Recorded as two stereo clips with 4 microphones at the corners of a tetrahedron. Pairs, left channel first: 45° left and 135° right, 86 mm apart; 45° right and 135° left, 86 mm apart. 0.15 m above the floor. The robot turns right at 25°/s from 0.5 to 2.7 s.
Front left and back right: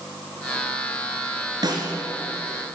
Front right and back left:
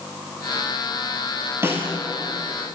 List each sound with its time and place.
1.6 s a snare drum: 165° right, 1.8 m; by 1.9 s 160° right, 1.8 m